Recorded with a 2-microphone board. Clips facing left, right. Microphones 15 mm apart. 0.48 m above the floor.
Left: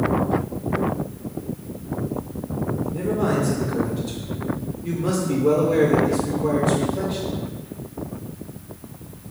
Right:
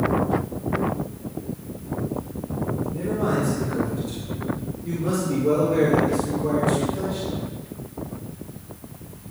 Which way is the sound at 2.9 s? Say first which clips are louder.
Left 2 dB; 40° left (ahead or behind).